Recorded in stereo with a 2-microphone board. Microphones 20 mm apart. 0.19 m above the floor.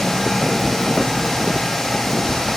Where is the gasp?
I don't hear a gasp.